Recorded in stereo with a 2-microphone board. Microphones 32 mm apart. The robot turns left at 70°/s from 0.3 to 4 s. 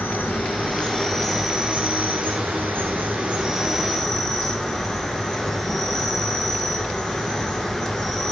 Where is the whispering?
No whispering in this recording.